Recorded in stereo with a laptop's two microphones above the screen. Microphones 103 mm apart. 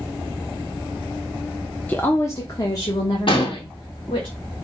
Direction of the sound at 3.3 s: 55° left (ahead or behind).